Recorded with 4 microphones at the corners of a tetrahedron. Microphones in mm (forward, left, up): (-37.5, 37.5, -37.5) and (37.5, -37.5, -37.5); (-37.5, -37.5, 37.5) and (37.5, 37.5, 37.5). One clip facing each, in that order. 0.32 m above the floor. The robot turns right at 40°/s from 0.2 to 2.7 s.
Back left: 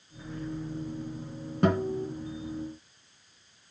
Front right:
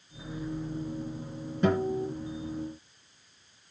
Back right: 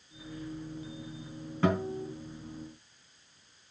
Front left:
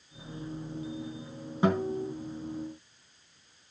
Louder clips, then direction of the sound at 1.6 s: Even, front left 2 dB; 115° left.